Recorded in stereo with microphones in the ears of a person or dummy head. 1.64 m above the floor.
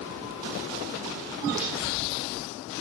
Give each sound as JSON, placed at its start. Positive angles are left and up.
{"t": 1.6, "sound": "breaking glass", "side_deg": -20, "distance_m": 5.5}